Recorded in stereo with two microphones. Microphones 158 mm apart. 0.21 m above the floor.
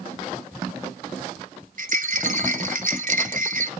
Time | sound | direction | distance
1.8 | a rattle | 60° right (ahead or behind) | 0.8 m